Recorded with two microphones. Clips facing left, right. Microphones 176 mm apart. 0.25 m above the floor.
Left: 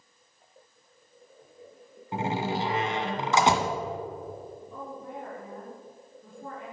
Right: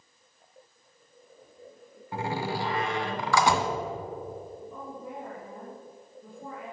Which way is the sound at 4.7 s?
10° right (ahead or behind).